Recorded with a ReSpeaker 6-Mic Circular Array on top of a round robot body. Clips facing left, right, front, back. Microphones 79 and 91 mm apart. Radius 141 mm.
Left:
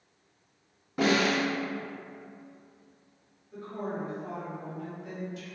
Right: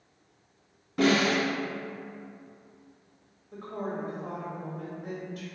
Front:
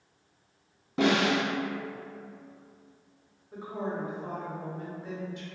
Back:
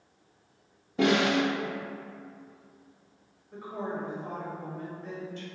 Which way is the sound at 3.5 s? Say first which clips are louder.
Right 1 dB, front 1 dB; 75° right.